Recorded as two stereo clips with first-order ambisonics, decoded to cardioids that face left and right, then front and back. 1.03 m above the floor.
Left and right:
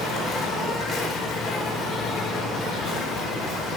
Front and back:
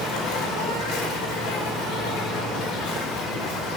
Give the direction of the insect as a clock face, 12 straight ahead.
11 o'clock.